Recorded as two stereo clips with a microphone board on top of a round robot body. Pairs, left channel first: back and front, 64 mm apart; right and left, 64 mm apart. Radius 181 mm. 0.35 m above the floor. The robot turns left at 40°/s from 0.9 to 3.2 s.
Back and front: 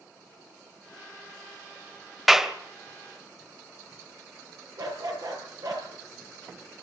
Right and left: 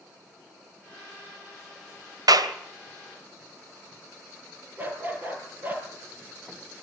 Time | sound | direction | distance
2.3 | a clap | 90° left | 2 m
4.8 | a dog barking | 30° left | 5.5 m